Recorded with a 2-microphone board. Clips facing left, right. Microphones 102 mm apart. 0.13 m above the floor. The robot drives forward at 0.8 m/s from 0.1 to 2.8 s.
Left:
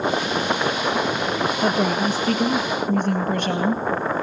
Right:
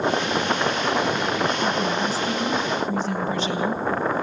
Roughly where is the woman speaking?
Left.